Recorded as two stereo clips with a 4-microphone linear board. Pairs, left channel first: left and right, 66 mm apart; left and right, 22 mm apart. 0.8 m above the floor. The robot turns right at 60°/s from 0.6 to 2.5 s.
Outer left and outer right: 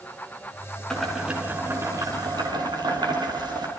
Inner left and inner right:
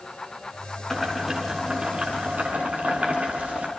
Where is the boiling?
170° left, 7 m; by 3.7 s 95° right, 7 m.